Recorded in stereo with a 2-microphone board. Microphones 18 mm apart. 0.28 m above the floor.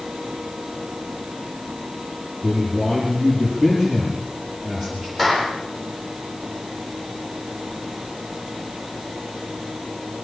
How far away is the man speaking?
About 6.5 m.